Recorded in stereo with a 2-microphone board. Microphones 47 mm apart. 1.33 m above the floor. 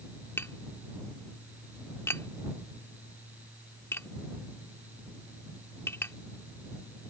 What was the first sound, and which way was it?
Tapping, 65° left (ahead or behind).